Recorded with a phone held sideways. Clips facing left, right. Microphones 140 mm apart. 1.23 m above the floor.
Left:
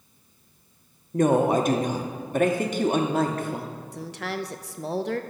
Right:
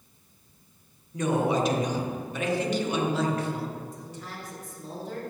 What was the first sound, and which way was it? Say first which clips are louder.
A woman speaking: left 5 dB; 50° left (ahead or behind).